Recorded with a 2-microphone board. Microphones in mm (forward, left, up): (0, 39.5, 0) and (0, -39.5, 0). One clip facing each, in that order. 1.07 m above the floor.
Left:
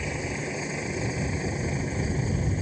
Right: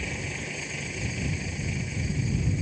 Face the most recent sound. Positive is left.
turn(degrees=40)  # may be behind; listen again after turning